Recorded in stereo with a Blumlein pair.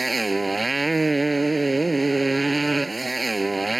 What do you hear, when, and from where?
0.0 s a motorcycle: 10° right